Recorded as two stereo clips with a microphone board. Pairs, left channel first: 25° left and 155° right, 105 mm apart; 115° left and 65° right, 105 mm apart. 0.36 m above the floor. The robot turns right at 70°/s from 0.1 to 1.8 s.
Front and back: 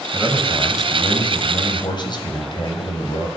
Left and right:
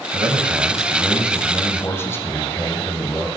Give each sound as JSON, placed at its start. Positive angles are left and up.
{"t": 0.1, "sound": "a man speaking", "azimuth_deg": -65, "distance_m": 2.5}